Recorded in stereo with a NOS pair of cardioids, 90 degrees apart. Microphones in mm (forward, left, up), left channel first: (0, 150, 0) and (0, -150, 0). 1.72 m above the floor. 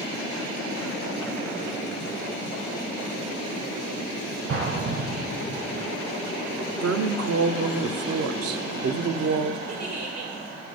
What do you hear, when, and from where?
4.5 s an explosion: 55° right, 6 m
6.8 s a woman speaking: 55° right, 1.1 m
9.7 s a giggle: 60° right, 3 m